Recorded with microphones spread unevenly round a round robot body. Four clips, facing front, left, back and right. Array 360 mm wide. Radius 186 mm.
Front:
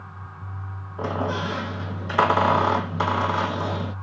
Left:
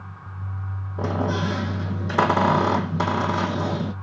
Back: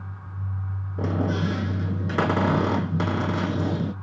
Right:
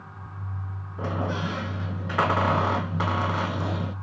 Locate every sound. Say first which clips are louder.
1.0 s a squeak: left 4 dB, even; 160° left, 1.2 m